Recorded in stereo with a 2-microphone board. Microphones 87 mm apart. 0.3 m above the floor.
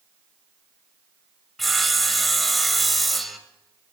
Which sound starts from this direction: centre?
Sawing, at 1.6 s.